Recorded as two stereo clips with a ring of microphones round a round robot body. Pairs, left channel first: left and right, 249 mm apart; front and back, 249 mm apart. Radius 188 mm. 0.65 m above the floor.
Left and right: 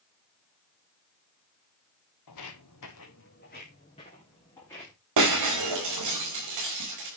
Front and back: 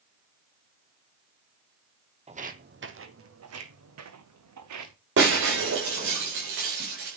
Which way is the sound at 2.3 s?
115° left.